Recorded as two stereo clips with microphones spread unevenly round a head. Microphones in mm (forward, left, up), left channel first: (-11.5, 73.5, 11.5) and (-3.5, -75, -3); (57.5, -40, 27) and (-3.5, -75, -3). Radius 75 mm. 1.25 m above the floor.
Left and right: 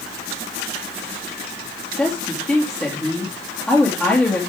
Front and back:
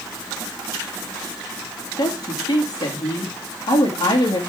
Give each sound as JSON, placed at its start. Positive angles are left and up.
{"t": 2.0, "sound": "a woman speaking", "azimuth_deg": 10, "distance_m": 2.5}